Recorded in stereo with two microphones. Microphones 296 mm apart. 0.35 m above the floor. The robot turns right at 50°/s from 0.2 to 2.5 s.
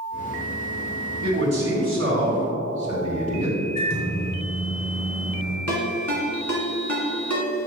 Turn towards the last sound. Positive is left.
turn(degrees=75)  # may be behind; listen again after turning